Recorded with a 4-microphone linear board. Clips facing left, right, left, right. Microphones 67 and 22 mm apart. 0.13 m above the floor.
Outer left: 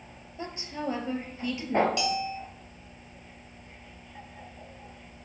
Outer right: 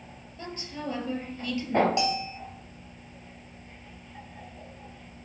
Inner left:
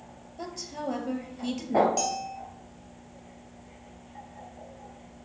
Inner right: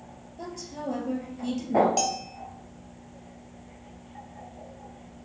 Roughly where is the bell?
Right.